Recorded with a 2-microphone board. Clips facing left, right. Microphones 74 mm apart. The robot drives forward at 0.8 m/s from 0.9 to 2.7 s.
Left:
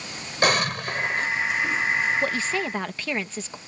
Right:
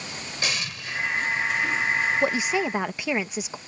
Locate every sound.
0.4 s an explosion: 55° left (ahead or behind); by 1.3 s 60° left (ahead or behind)
2.2 s a woman speaking: 15° right (ahead or behind); by 3.6 s 10° right (ahead or behind)